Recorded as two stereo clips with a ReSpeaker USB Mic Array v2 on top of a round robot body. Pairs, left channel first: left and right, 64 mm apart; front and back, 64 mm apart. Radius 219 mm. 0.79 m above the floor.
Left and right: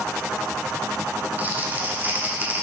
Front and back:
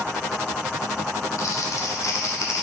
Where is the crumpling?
30° right, 2 m.